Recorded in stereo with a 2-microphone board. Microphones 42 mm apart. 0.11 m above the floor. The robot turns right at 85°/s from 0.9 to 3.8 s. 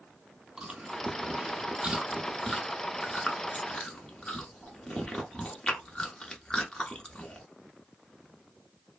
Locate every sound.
0.6 s chewing: 15° right (ahead or behind), 0.9 m; by 7.4 s 20° left (ahead or behind), 0.9 m